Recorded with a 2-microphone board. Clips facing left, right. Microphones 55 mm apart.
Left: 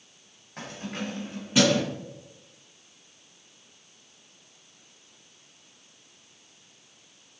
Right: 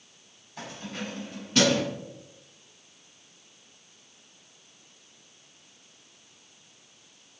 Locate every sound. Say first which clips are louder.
0.6 s keys jangling: left 2 dB; 55° left (ahead or behind), 1.7 m; by 1.8 s 5° right (ahead or behind), 1.1 m